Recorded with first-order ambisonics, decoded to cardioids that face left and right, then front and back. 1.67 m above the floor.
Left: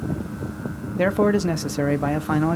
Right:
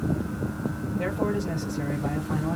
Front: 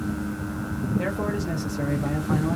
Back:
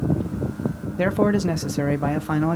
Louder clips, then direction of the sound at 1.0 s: Left 9 dB, back 9 dB; 125° left.